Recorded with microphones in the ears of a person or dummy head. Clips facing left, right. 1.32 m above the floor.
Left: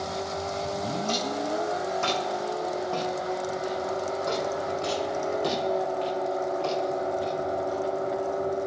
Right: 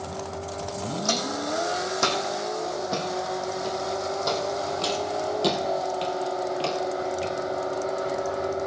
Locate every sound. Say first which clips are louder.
1.1 s footsteps: right 2 dB; 75° right (ahead or behind), 4.5 m; by 7.3 s 35° right (ahead or behind), 1.9 m